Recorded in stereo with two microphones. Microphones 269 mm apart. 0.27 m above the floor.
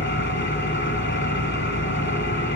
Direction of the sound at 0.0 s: 45° left (ahead or behind).